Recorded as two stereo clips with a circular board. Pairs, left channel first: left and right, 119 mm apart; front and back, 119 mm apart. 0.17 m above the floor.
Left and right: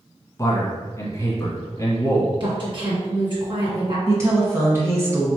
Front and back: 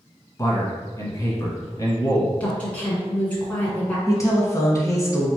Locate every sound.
0.4 s a man speaking: 45° left, 1.5 m
2.4 s a woman speaking: 75° right, 1.9 m
4.1 s a woman speaking: 40° right, 1.4 m